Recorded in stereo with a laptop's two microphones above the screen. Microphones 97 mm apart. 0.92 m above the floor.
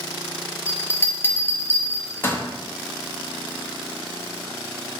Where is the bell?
25° left (ahead or behind), 0.6 m.